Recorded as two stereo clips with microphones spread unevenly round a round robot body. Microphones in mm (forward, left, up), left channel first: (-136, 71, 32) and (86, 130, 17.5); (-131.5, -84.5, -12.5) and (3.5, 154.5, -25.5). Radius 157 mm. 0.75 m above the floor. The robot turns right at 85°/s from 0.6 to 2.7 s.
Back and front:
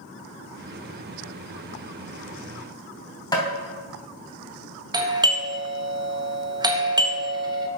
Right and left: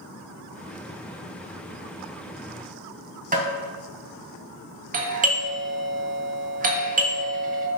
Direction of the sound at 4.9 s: 60° left.